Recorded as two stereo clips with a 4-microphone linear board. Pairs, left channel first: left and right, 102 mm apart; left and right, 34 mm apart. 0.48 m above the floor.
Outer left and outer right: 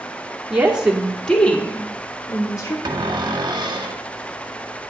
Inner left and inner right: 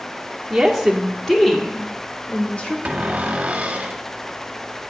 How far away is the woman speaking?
About 1.3 m.